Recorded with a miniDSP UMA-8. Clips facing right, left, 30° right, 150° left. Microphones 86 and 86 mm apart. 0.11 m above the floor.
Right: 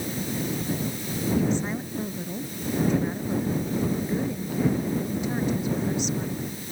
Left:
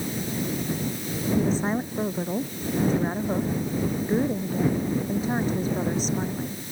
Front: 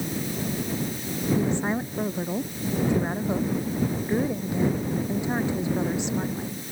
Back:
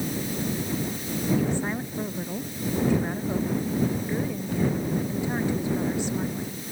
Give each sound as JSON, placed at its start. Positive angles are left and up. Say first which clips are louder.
{"t": 1.4, "sound": "a woman speaking", "louder": "left 3 dB, front 1 dB", "azimuth_deg": 40}